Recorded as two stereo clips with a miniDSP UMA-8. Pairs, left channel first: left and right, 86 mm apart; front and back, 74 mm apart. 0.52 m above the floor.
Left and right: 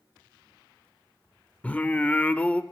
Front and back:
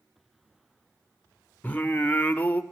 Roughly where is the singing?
Ahead left.